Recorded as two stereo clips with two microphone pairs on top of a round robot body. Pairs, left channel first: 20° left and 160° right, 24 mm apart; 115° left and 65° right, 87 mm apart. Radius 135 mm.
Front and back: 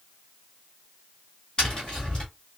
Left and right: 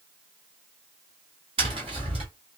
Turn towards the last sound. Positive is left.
turn(degrees=-40)